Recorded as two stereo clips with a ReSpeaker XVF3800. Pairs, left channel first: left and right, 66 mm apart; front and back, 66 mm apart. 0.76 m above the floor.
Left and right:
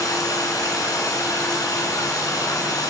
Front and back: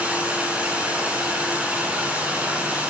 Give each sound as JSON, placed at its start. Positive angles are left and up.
{"t": 0.0, "sound": "running water", "azimuth_deg": 110, "distance_m": 2.5}